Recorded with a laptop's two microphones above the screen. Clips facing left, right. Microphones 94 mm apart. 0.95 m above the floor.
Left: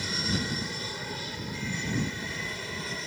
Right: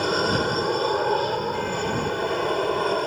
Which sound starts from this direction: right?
An aircraft, at 0.0 s.